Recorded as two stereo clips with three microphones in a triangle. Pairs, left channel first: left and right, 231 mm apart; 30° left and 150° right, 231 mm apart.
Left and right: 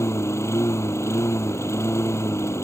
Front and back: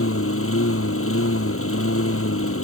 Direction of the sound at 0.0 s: 10° left.